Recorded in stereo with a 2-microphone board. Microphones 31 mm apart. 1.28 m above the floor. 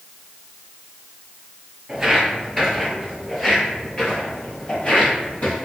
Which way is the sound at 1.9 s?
15° right (ahead or behind).